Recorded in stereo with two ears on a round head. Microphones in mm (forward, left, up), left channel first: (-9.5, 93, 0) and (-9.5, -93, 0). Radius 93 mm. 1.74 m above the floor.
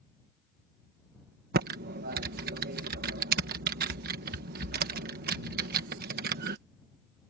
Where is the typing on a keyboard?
50° right (ahead or behind).